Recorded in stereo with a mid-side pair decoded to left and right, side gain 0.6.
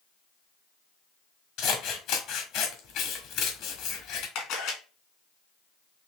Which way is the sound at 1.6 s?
65° left.